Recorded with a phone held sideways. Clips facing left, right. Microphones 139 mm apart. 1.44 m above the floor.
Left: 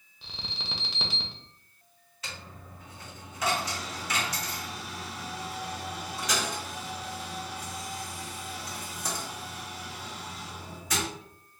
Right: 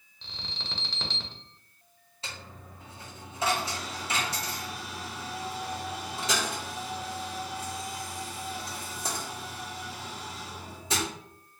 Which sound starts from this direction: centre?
An alarm, at 0.2 s.